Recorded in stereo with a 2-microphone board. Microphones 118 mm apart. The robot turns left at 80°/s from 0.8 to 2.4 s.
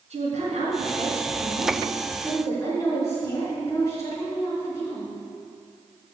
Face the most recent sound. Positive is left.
turn(degrees=150)